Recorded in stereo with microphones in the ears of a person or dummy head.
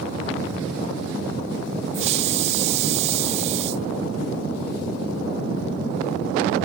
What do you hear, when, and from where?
1.9 s a hiss: 40° right (ahead or behind)